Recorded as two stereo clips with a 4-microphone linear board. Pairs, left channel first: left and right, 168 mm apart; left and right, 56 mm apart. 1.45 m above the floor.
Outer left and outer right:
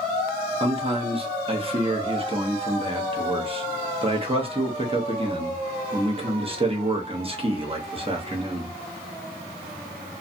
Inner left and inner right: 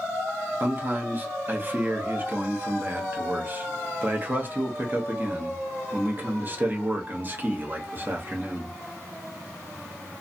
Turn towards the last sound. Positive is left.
turn(degrees=-35)  # may be behind; listen again after turning